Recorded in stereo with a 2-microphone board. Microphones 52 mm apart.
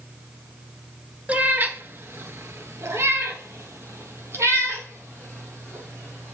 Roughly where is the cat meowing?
Right.